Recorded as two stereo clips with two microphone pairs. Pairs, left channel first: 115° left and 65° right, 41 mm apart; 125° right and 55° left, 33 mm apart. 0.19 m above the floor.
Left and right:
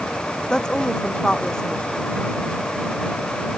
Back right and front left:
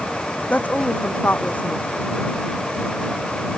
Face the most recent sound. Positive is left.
turn(degrees=-170)